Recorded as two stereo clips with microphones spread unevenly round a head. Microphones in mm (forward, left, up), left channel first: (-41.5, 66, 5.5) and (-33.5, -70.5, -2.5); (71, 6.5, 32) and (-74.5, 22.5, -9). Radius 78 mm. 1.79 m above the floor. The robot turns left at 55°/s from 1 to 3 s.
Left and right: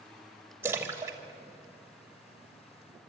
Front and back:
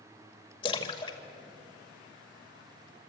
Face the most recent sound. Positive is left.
turn(degrees=-125)